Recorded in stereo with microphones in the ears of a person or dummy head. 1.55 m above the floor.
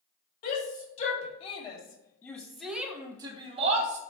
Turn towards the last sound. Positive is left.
turn(degrees=-45)  # may be behind; listen again after turning